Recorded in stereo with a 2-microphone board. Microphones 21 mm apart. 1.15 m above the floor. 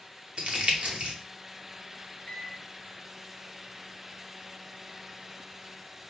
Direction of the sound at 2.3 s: 45° left (ahead or behind).